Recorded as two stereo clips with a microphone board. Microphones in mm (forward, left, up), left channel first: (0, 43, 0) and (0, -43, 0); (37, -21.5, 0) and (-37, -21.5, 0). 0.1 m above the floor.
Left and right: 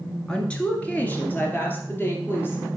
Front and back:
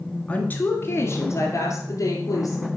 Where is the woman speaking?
25° left, 1.5 m; by 2.7 s 30° left, 3.5 m.